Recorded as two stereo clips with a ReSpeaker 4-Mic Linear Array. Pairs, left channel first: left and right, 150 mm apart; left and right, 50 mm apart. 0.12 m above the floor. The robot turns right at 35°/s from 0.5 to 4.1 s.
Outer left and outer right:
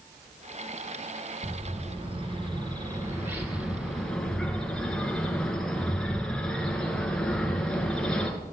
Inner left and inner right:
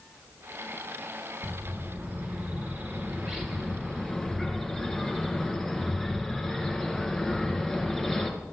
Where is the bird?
90° right, 2 m; by 8.3 s 5° left, 2 m.